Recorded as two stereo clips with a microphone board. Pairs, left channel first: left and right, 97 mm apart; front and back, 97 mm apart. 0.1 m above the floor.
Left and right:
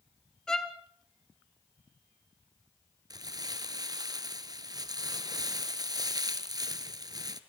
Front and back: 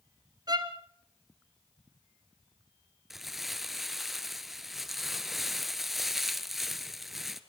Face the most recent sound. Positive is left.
turn(degrees=-95)